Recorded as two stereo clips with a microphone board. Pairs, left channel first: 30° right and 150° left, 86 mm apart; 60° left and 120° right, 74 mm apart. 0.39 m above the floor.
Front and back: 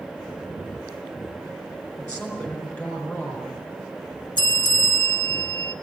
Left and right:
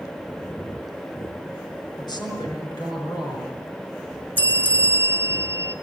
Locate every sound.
2.0 s a woman speaking: 45° left, 5.5 m
4.4 s a bell: 55° right, 1.1 m